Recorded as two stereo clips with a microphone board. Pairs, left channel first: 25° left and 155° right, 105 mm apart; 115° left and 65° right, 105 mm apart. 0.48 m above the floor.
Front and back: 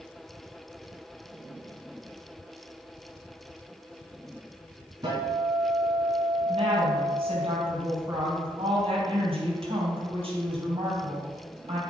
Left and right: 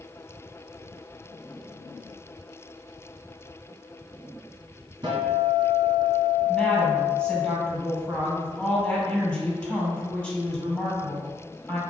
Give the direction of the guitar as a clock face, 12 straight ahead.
4 o'clock.